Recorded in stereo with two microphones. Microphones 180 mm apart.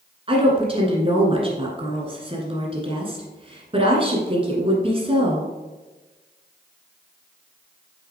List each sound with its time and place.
0.3 s a woman speaking: 30° right (ahead or behind), 1.6 m